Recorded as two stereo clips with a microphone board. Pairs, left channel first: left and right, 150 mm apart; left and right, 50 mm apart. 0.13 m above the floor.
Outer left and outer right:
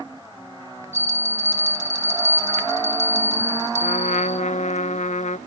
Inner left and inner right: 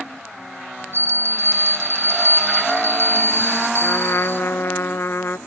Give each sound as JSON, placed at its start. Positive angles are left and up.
{"t": 0.9, "sound": "a bell", "side_deg": -55, "distance_m": 3.5}
{"t": 3.8, "sound": "a trumpet", "side_deg": 55, "distance_m": 0.7}